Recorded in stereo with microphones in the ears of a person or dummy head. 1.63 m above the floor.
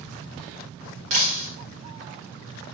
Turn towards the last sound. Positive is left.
turn(degrees=-45)  # may be behind; listen again after turning